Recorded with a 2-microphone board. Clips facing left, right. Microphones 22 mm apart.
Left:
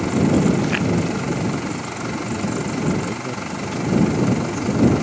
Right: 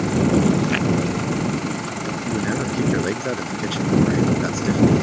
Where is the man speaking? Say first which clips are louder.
Right 1 dB; 50° right (ahead or behind).